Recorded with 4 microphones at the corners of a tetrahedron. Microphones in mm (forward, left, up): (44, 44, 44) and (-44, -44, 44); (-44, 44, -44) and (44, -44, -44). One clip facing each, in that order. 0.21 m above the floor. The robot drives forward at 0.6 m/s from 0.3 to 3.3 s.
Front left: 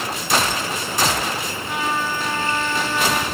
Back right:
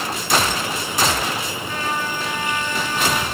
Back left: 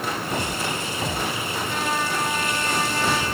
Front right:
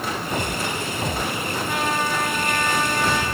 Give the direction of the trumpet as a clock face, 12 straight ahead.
1 o'clock.